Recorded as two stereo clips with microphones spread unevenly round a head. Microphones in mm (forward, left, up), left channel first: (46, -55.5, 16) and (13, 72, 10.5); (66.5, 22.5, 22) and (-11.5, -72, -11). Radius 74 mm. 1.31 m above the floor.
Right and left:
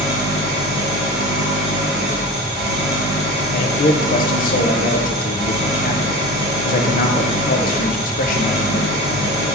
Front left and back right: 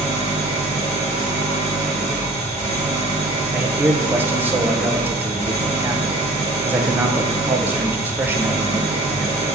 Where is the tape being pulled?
I don't hear tape being pulled.